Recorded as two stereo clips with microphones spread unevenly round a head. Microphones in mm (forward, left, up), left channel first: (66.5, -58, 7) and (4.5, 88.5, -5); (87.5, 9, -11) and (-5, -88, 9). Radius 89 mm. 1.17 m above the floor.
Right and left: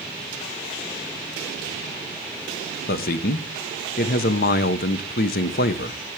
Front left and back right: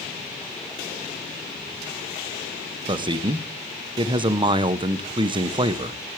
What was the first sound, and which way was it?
A man speaking, 80° right.